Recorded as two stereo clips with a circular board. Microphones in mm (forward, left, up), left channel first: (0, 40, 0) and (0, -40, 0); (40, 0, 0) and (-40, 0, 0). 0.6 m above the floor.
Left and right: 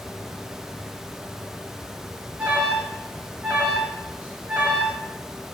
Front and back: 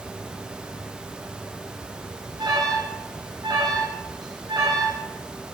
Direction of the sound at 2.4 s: 160° right.